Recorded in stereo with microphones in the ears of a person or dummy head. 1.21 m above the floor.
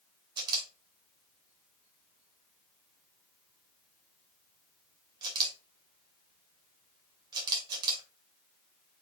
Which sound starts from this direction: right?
A camera shutter, at 0.4 s.